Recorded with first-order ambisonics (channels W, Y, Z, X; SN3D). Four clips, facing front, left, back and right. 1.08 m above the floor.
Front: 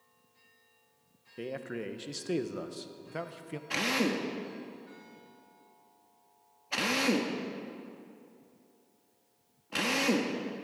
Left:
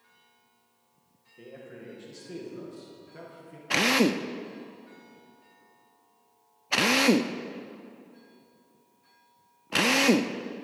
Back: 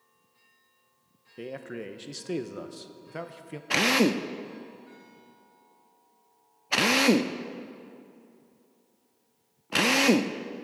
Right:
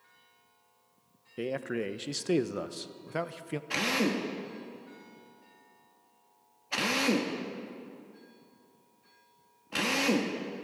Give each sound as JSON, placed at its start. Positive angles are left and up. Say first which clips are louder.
{"t": 1.4, "sound": "a man speaking", "louder": "right 12 dB, even", "azimuth_deg": -90, "distance_m": 0.6}
{"t": 3.7, "sound": "a drill", "louder": "left 6 dB, back 7 dB", "azimuth_deg": 140, "distance_m": 0.5}